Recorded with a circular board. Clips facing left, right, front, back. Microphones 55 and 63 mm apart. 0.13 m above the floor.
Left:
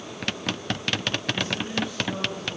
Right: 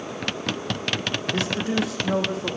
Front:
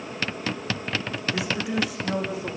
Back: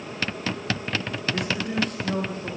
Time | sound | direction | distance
1.3 | a man speaking | 85° right | 5.5 m